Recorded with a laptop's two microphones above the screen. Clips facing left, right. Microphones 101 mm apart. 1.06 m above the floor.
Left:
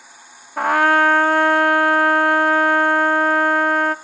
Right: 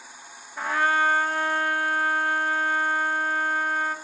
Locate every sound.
0.6 s a trumpet: 65° left (ahead or behind), 0.6 m